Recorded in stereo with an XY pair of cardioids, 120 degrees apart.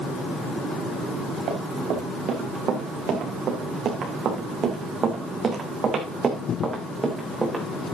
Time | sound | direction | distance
1.5 | running footsteps | 70° right | 5.5 m